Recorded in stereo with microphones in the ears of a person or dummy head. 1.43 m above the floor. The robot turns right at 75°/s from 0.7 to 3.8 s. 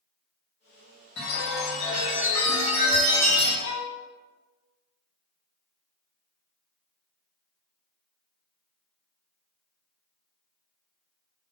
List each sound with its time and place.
1.2 s a chime: 105° left, 0.8 m; by 3.5 s 80° right, 0.8 m
3.6 s a violin: 60° left (ahead or behind), 0.5 m